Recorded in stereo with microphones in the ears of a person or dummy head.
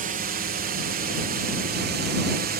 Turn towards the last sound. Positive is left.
turn(degrees=-50)  # may be behind; listen again after turning